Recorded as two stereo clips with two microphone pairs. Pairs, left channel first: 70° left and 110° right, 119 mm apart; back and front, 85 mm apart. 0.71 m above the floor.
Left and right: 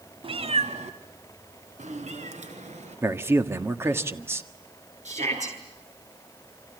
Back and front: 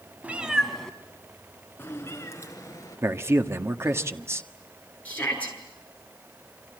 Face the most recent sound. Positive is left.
turn(degrees=-110)